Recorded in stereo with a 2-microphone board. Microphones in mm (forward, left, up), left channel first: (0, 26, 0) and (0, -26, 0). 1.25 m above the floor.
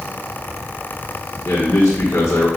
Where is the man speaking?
60° left (ahead or behind), 1.5 m.